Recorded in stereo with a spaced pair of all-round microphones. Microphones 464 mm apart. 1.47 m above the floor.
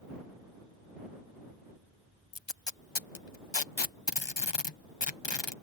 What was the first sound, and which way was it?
Tape being pulled, 65° left (ahead or behind).